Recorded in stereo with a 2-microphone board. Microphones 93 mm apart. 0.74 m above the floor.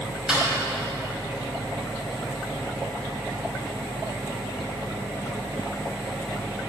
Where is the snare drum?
5° right (ahead or behind), 5 m.